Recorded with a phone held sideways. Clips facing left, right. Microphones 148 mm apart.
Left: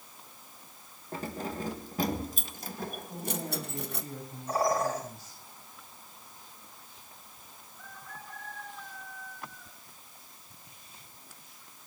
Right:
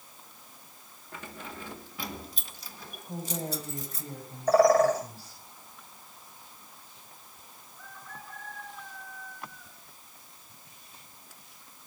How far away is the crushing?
No crushing in this recording.